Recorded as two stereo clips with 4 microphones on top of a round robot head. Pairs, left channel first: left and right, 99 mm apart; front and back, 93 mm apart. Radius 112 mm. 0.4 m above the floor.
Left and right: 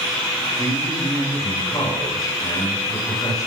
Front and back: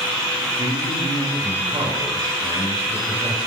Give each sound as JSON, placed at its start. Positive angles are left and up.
{"t": 0.6, "sound": "a man speaking", "azimuth_deg": 145, "distance_m": 6.0}